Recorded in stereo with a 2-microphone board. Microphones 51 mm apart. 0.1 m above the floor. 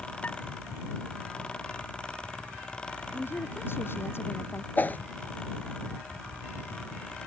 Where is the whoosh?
35° left (ahead or behind).